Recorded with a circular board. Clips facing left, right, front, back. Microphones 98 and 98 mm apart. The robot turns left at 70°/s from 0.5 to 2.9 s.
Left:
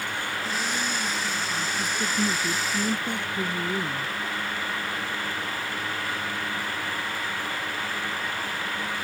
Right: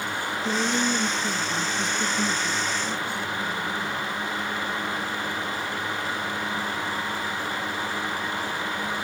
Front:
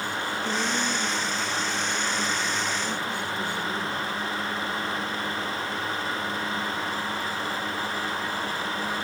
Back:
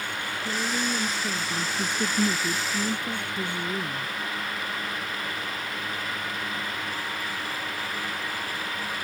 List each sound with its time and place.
0.5 s a woman speaking: 75° right; by 4.1 s 115° left